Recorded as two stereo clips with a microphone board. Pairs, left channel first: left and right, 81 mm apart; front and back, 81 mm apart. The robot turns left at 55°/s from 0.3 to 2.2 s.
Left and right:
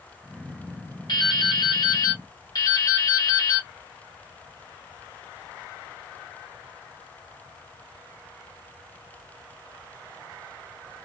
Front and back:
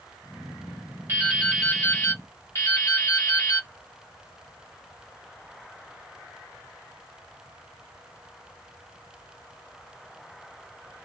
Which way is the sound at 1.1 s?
120° left.